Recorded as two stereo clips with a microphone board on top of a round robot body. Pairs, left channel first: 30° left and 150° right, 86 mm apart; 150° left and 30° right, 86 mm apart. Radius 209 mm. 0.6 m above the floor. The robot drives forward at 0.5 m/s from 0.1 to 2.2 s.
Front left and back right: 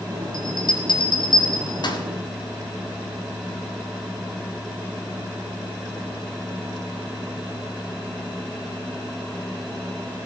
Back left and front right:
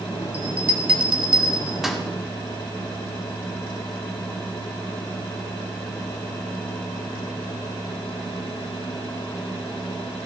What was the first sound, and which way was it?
A bell, 40° left.